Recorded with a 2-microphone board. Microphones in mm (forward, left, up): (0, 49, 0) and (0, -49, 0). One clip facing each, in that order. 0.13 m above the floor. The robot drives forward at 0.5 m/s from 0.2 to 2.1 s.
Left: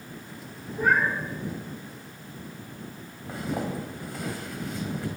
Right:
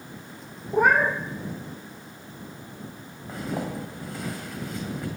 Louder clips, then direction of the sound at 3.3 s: Even; centre (ahead or behind).